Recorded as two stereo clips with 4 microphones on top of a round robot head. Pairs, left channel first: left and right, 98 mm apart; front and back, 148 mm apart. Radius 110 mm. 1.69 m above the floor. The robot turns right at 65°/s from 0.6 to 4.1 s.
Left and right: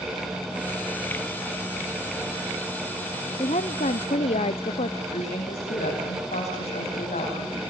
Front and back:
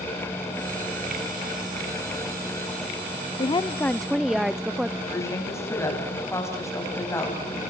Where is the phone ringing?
No phone ringing in this recording.